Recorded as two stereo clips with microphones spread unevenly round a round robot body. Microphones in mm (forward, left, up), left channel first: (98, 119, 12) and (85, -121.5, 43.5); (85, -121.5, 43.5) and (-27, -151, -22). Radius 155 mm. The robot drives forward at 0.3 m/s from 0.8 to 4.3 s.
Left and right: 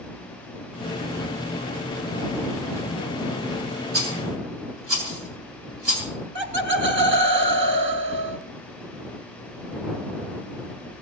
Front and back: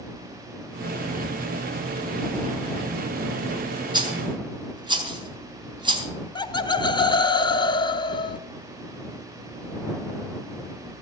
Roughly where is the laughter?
Ahead right.